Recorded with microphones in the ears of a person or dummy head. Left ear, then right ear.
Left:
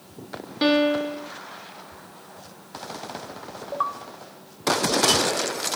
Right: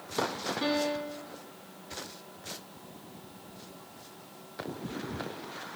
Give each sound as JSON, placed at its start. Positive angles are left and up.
{"t": 0.6, "sound": "a piano", "side_deg": 50, "distance_m": 0.8}